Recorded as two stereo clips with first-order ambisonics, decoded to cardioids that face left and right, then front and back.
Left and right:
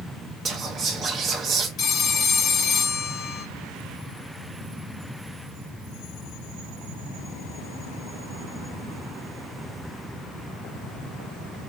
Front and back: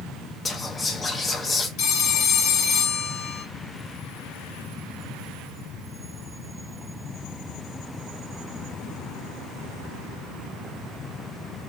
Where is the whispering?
65° right, 0.6 m.